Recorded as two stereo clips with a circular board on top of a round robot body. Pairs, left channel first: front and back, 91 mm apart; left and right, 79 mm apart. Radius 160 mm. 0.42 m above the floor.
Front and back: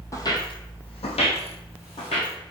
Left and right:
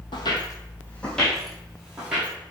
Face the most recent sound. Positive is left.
turn(degrees=-10)